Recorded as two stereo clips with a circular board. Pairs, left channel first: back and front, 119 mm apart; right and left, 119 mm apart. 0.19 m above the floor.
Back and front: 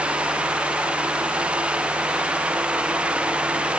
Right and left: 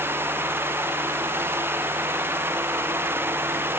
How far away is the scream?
I don't hear a scream.